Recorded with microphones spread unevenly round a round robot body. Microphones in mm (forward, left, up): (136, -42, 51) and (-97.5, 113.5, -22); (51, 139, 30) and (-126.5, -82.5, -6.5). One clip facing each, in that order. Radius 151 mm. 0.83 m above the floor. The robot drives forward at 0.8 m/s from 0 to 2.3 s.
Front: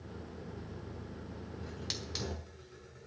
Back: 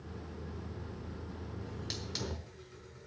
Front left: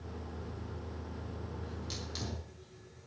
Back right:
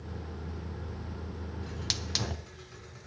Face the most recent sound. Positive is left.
turn(degrees=-125)